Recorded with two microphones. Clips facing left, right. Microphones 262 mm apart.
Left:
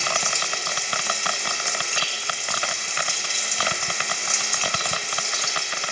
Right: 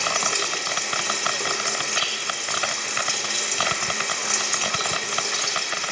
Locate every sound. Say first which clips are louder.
0.0 s running water: right 2 dB; 65° right (ahead or behind), 3 m